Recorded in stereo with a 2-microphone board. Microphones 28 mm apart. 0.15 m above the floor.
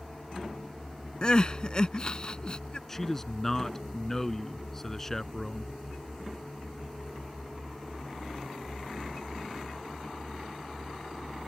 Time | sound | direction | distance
1.2 | crying | 35° left (ahead or behind) | ?
2.9 | a man speaking | 15° left (ahead or behind) | ?